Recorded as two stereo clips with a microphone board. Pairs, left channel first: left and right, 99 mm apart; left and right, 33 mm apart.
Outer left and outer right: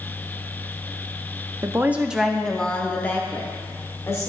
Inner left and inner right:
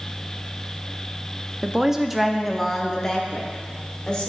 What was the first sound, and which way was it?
A woman speaking, 30° right (ahead or behind).